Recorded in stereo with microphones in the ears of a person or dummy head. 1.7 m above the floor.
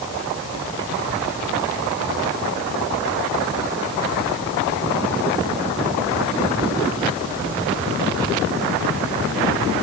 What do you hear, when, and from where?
Only background noise.